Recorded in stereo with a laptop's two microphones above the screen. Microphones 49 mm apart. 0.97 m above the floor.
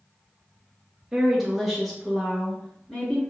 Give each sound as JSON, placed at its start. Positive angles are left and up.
{"t": 1.1, "sound": "a woman speaking", "side_deg": -15, "distance_m": 0.8}